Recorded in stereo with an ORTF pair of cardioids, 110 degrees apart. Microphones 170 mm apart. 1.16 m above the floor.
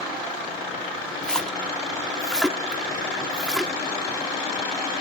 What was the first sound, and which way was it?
A splash, 5° left.